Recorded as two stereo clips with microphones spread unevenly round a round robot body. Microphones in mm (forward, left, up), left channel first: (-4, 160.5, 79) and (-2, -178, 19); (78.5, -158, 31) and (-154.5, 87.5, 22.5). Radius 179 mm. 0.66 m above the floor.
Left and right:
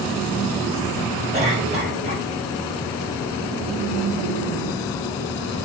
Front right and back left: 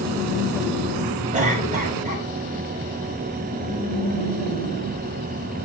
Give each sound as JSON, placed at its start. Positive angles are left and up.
{"t": 1.3, "sound": "a cough", "azimuth_deg": -155, "distance_m": 4.5}